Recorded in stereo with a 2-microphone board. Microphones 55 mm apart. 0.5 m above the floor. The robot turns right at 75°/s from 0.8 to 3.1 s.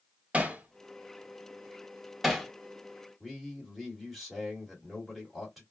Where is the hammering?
25° right (ahead or behind), 0.7 m; by 2.5 s 5° left (ahead or behind), 0.7 m.